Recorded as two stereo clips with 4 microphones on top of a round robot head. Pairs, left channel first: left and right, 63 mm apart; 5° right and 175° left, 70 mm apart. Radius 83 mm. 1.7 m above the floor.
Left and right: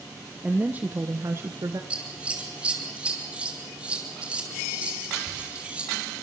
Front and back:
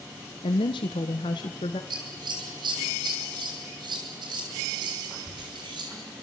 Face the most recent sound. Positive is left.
turn(degrees=-165)